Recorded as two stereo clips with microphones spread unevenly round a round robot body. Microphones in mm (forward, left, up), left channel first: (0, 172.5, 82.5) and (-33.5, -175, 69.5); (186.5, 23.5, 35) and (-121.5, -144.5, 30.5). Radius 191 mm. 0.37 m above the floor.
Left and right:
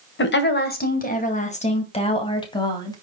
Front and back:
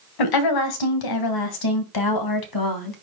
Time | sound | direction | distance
0.2 | a woman speaking | 25° left | 2 m